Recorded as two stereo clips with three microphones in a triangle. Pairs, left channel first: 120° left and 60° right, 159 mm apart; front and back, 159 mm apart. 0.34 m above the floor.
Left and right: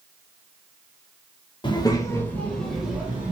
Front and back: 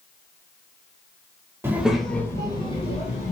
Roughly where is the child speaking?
Behind left.